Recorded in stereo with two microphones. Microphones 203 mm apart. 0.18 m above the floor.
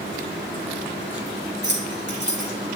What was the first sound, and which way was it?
Keys jangling, 65° right (ahead or behind).